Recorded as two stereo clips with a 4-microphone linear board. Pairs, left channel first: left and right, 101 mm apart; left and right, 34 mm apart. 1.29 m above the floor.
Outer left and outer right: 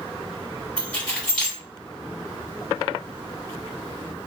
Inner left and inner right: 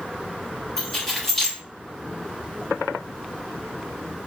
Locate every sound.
0.8 s keys jangling: 10° left (ahead or behind), 1.6 m